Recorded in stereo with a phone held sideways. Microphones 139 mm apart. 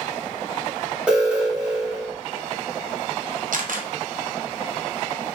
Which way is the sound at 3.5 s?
70° right (ahead or behind).